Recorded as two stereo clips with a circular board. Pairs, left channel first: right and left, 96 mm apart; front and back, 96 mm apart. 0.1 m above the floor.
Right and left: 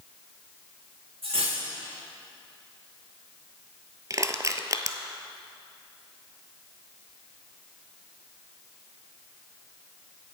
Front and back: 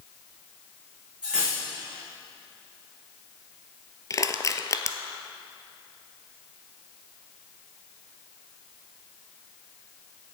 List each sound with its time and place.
1.2 s cutlery clinking: 100° left, 4 m
4.1 s crushing: 45° left, 0.6 m